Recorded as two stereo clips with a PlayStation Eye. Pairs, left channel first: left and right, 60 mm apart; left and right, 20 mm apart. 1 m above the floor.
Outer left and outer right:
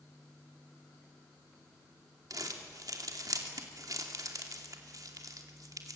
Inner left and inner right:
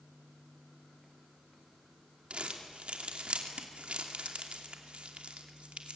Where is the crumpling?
80° right, 2.5 m.